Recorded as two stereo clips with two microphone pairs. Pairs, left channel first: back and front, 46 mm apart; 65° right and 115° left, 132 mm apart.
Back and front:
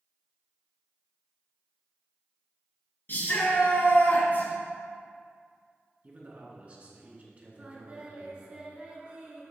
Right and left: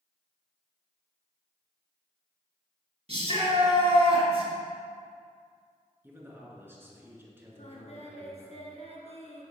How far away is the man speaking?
About 2 m.